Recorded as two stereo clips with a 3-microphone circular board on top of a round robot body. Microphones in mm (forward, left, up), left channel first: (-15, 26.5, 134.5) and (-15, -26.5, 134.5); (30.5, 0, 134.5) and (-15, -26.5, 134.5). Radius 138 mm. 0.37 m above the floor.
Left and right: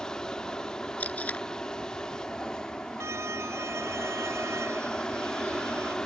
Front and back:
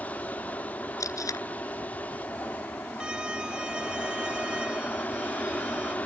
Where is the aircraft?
25° left.